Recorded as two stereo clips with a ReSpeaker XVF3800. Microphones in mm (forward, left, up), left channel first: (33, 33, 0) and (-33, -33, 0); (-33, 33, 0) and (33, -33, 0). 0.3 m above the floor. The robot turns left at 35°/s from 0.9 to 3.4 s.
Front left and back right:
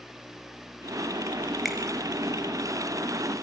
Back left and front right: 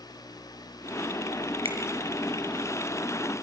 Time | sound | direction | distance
1.6 | a finger snap | 45° right | 3.5 m